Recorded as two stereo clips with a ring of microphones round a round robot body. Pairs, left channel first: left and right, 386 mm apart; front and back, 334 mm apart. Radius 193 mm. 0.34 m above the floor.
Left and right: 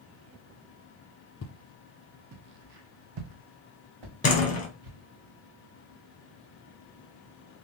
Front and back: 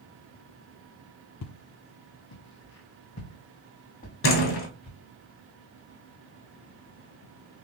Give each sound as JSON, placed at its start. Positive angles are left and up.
{"t": 1.4, "sound": "footsteps", "azimuth_deg": 35, "distance_m": 0.5}
{"t": 4.2, "sound": "a door slam", "azimuth_deg": 30, "distance_m": 1.3}